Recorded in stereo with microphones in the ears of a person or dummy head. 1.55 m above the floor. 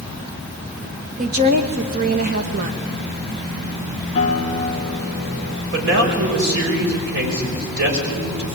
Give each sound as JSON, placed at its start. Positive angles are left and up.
{"t": 1.2, "sound": "a woman speaking", "side_deg": -45, "distance_m": 1.9}
{"t": 4.2, "sound": "a guitar", "side_deg": 30, "distance_m": 2.5}
{"t": 5.7, "sound": "a man speaking", "side_deg": -65, "distance_m": 6.0}